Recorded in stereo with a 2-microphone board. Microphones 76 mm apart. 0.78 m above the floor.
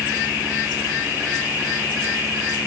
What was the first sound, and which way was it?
Only background noise.